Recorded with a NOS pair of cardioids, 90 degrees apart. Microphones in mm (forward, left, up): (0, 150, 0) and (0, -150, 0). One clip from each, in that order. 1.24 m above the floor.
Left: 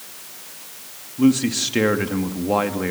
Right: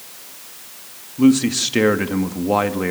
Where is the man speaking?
15° right, 2.5 m.